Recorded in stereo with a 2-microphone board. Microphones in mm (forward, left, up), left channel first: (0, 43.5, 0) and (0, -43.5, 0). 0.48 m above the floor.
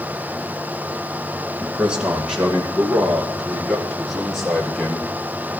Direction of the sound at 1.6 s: 15° right (ahead or behind).